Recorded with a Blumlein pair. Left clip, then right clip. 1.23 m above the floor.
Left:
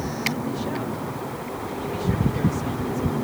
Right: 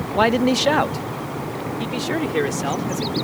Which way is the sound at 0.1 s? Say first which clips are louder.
Right 14 dB; 45° right.